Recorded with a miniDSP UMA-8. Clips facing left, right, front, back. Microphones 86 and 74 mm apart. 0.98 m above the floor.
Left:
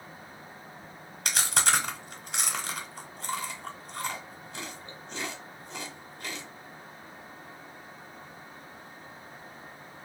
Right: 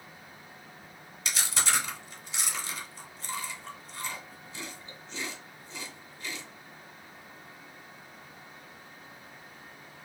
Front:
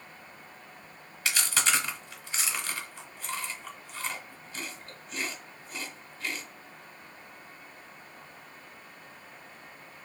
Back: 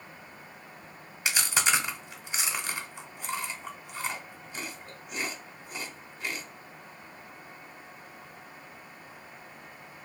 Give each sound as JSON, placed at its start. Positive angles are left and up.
{"t": 1.2, "sound": "chewing", "azimuth_deg": 115, "distance_m": 1.1}